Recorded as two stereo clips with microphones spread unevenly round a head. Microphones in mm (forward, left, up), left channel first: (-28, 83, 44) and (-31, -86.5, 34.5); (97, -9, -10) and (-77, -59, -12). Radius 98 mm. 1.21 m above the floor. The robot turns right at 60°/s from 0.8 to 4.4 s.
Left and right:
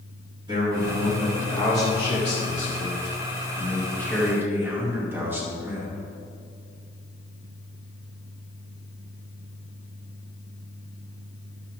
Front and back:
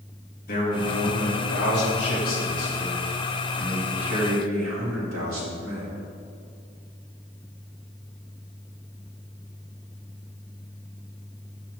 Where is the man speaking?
25° right, 2.5 m; by 6.0 s 170° right, 2.5 m.